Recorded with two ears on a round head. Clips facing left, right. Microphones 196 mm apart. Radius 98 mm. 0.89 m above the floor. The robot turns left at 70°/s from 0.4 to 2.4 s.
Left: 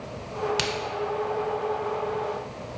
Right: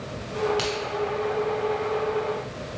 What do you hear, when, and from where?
0.6 s a crack: 25° left (ahead or behind), 0.8 m; by 0.7 s 30° left (ahead or behind), 0.8 m